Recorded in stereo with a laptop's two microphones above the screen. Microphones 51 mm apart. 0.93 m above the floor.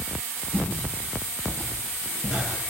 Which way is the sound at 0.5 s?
30° left (ahead or behind).